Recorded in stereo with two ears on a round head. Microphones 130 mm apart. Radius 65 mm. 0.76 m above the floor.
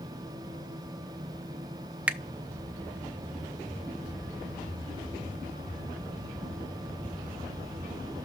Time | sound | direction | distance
2.1 | a finger snap | 10° right (ahead or behind) | 0.6 m